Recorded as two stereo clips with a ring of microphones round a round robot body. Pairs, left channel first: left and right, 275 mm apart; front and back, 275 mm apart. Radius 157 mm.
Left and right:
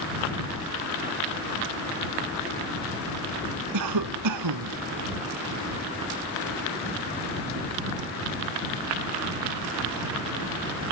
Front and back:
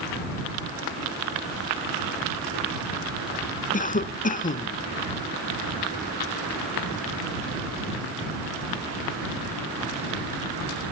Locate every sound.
3.7 s a cough: 60° right